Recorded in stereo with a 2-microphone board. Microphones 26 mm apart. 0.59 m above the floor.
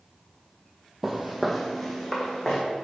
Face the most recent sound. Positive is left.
turn(degrees=15)  # may be behind; listen again after turning